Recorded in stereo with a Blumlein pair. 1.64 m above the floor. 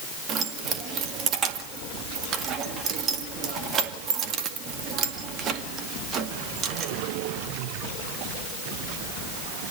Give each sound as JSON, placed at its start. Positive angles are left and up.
{"t": 0.3, "sound": "keys jangling", "azimuth_deg": -30, "distance_m": 2.0}